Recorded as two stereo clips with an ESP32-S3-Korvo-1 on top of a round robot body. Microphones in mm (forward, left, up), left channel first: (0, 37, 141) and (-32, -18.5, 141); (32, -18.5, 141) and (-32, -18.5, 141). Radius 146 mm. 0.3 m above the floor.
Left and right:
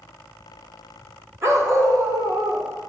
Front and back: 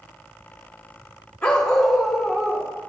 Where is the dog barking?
75° right, 1.7 m; by 2.7 s 105° right, 2 m.